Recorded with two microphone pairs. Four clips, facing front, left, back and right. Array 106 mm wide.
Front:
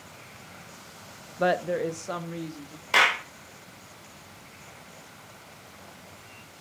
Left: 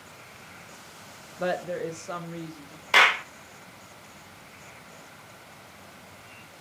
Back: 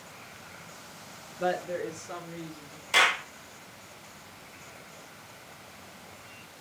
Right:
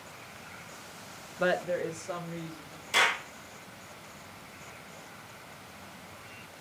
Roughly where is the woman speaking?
Ahead right.